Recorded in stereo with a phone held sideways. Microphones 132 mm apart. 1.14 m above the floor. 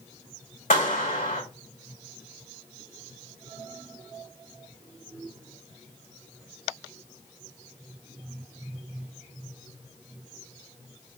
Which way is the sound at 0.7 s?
85° left.